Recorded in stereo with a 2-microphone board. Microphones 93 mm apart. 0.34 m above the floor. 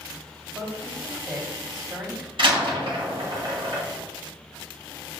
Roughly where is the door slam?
Right.